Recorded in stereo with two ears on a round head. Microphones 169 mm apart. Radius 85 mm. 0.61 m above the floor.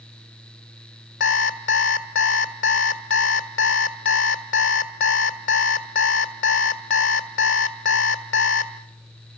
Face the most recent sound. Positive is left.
turn(degrees=70)  # may be behind; listen again after turning